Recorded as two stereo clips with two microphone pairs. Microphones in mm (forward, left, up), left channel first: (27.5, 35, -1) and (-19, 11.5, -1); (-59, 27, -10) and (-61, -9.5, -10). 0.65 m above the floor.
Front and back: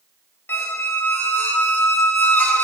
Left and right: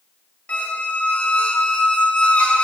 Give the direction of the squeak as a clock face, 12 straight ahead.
10 o'clock.